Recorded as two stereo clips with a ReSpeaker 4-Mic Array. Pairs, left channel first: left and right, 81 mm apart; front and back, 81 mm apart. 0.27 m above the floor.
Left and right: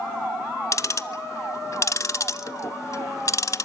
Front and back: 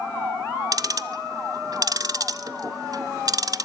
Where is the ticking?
140° left, 0.5 m.